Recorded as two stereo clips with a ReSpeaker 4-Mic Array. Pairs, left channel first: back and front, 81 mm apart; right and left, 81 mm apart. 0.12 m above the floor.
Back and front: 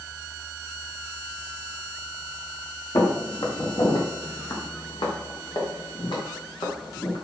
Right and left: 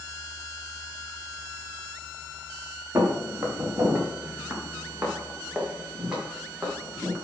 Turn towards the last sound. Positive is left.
turn(degrees=175)